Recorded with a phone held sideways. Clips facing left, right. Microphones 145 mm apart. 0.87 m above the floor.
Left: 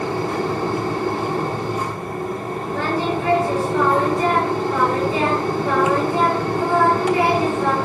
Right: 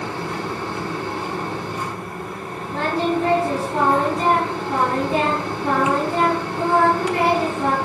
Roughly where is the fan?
Left.